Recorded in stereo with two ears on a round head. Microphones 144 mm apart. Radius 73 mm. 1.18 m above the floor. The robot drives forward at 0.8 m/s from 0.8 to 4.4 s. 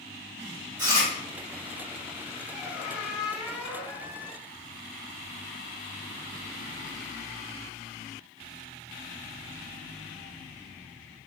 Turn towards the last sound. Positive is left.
turn(degrees=0)  # may be behind; listen again after turning